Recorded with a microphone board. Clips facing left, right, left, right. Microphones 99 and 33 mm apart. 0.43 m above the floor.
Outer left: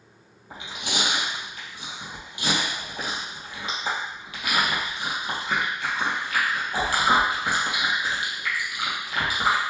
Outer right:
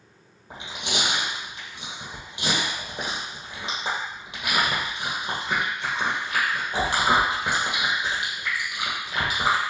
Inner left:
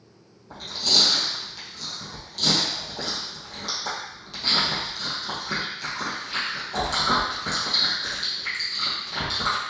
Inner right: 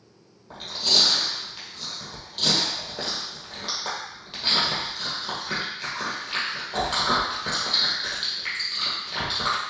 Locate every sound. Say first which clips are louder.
0.5 s chewing: outer right 1 dB, even; 25° right (ahead or behind), 2.5 m